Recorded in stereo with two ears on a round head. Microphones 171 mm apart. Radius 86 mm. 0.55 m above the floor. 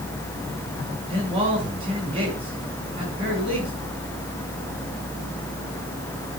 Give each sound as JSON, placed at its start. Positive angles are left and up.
{"t": 1.1, "sound": "a man speaking", "side_deg": -30, "distance_m": 6.0}